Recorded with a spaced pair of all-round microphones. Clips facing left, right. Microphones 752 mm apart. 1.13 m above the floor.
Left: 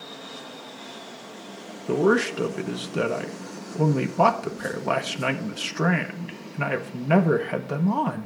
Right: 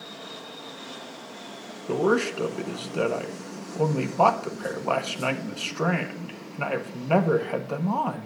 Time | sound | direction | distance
1.9 | a man speaking | 55° left (ahead or behind) | 0.9 m